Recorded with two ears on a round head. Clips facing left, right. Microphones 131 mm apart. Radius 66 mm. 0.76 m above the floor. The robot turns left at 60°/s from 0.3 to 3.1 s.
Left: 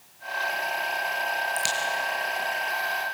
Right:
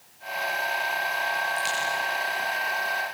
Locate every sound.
1.6 s a crack: 65° left (ahead or behind), 7 m; by 1.8 s 55° left (ahead or behind), 7 m